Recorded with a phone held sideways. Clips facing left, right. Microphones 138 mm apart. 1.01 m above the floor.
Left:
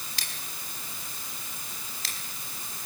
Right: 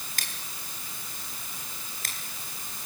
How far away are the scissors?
About 4 m.